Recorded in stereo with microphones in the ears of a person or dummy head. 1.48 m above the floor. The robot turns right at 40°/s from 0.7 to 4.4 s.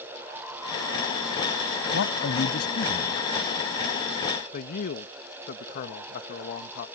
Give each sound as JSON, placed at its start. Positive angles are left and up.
{"t": 1.9, "sound": "a man speaking", "azimuth_deg": 105}
{"t": 4.5, "sound": "a man speaking", "side_deg": 50}